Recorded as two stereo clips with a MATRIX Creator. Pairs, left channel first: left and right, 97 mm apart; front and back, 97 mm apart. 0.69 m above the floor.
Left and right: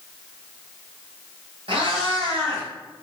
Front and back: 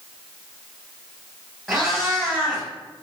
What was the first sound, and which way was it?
A cat meowing, 95° right.